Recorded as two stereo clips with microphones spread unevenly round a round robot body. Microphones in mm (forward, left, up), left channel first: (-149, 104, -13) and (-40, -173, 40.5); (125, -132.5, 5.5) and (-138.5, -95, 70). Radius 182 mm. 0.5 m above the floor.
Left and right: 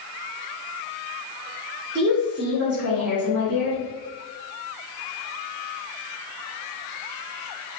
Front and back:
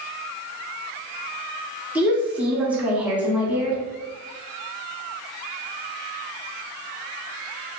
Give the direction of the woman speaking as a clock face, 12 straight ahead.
3 o'clock.